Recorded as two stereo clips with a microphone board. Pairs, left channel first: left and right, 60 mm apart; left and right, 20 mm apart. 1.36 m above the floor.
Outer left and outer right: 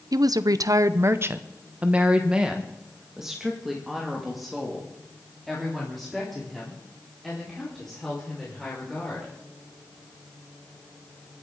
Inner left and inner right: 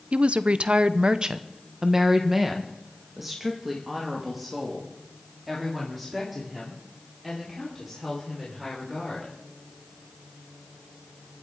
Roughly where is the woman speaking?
Right.